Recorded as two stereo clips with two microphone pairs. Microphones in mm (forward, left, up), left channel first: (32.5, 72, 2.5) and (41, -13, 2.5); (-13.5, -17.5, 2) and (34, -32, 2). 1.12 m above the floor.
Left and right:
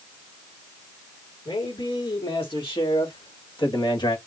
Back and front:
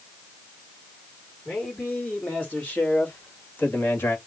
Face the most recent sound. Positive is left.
turn(degrees=120)